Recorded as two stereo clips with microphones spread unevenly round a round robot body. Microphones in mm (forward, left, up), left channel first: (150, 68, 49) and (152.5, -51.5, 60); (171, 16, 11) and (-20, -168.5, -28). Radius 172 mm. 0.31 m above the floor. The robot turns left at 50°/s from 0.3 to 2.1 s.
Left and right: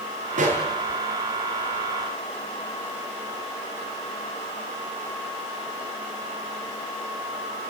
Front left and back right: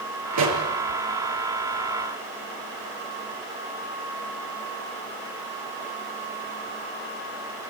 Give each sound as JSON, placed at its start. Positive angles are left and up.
{"t": 0.3, "sound": "a pop", "azimuth_deg": -125, "distance_m": 6.0}